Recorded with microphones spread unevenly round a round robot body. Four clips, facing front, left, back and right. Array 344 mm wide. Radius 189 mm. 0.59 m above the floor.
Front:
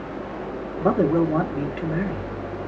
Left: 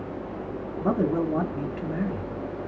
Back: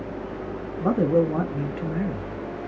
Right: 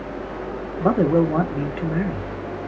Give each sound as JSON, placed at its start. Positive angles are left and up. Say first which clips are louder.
{"t": 0.8, "sound": "a man speaking", "louder": "right 7 dB, front 1 dB", "azimuth_deg": -45, "distance_m": 1.1}